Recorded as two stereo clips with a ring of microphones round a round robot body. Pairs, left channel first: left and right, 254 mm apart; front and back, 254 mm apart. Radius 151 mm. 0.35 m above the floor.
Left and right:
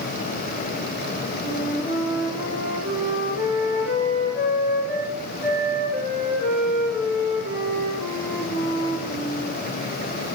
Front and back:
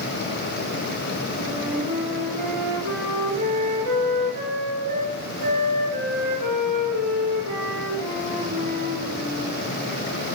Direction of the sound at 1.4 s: 175° right.